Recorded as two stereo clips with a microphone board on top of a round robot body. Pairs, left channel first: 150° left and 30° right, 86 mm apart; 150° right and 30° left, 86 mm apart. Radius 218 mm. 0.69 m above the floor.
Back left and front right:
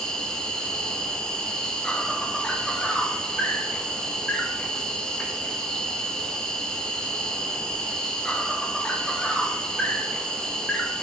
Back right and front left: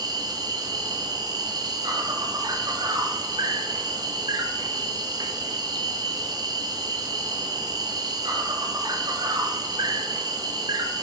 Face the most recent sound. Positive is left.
turn(degrees=70)